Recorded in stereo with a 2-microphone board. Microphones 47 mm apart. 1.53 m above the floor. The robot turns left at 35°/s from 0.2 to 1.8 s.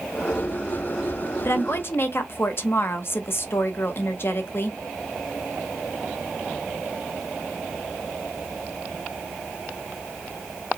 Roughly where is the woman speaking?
Left.